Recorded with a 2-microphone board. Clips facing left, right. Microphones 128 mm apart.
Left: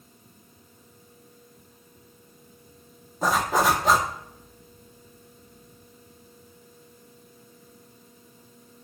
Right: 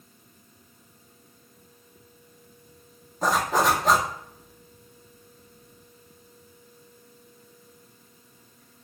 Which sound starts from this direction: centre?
A zipper, at 3.2 s.